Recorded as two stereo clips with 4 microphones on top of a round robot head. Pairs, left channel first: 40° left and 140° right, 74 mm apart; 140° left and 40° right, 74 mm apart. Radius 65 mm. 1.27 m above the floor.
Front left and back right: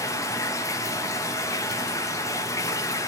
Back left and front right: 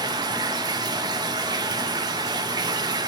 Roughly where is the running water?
Ahead.